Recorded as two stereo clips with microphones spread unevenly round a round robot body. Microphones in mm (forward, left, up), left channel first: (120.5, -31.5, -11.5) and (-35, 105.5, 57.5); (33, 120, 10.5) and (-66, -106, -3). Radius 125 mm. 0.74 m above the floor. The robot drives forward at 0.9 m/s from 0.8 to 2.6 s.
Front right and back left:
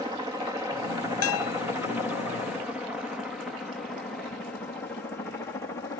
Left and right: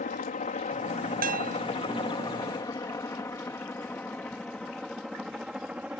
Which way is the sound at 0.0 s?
50° left.